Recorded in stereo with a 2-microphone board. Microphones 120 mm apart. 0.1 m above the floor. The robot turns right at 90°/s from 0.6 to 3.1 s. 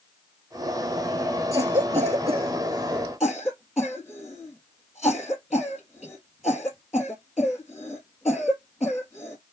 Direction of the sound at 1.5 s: 30° right (ahead or behind).